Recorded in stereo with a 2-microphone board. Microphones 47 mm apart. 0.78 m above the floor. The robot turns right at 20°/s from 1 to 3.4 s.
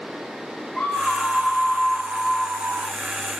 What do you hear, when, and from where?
0.8 s a scream: 170° left, 1.6 m; by 3.0 s 150° right, 1.6 m